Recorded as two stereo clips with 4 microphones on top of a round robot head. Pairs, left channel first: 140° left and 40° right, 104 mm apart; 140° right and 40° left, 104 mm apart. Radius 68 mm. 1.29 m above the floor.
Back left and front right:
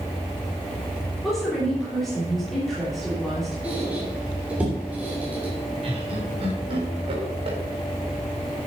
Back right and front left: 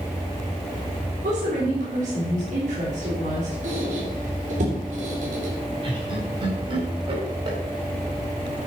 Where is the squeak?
35° left, 3 m.